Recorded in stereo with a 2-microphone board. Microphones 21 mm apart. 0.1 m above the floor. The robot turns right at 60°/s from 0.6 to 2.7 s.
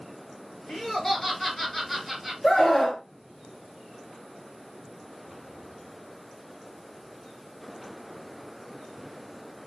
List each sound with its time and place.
0.7 s laughter: 20° left (ahead or behind), 1.7 m; by 2.3 s 15° right (ahead or behind), 1.7 m
2.4 s a scream: 15° left (ahead or behind), 1.3 m; by 3.0 s 5° left (ahead or behind), 1.3 m